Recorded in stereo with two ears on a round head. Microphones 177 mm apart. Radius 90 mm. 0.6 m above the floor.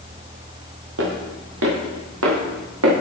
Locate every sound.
1.0 s footsteps: 70° right (ahead or behind), 6 m; by 2.9 s 85° right, 6 m